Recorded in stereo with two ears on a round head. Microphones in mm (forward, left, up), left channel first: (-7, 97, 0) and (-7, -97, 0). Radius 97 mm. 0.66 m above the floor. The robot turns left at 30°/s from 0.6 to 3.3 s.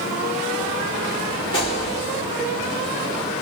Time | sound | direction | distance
1.5 | a gunshot | 20° left (ahead or behind) | 1.8 m